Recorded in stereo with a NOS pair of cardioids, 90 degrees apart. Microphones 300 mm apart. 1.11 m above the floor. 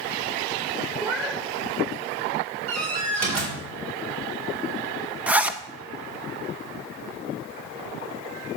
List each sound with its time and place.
1.0 s a cat meowing: 5° right, 1.6 m
2.7 s a door slam: 60° right, 4 m
5.3 s a zipper: 5° right, 0.8 m